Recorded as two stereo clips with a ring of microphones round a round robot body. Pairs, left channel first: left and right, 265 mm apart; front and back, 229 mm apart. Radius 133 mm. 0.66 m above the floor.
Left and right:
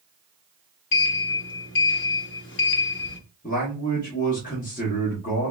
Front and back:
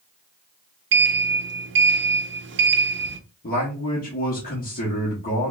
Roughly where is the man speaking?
Ahead left.